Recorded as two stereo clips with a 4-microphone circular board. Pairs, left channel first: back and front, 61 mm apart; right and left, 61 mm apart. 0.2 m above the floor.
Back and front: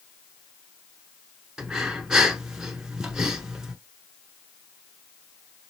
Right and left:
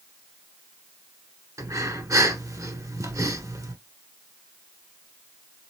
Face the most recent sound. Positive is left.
turn(degrees=80)